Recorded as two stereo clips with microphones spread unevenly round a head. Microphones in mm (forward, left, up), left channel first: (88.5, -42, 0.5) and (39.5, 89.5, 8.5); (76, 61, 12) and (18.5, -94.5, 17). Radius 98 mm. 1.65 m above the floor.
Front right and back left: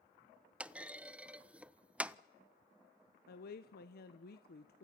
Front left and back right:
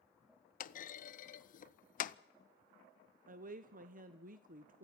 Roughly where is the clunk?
Ahead left.